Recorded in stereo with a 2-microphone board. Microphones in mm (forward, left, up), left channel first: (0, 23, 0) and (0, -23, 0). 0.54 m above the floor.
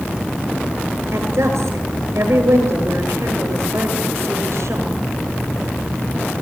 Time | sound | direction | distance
1.1 | a woman speaking | 85° right | 10 m